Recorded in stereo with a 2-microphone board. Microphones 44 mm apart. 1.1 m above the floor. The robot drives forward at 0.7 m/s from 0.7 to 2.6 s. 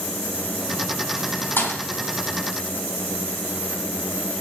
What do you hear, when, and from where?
1.6 s a thud: 60° left (ahead or behind), 3.5 m; by 1.8 s 55° left (ahead or behind), 3.5 m